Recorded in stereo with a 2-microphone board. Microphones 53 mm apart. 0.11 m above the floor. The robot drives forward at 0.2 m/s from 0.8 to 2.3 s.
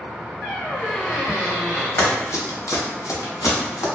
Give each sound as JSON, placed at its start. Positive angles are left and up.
{"t": 0.4, "sound": "a squeak", "side_deg": 30, "distance_m": 0.9}
{"t": 2.0, "sound": "running footsteps", "side_deg": 45, "distance_m": 1.1}